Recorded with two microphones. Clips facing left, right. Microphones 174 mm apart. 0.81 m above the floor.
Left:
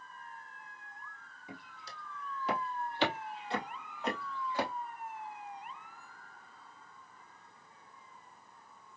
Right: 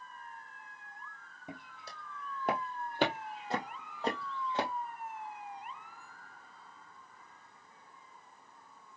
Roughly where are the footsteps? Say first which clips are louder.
Right 2 dB; right.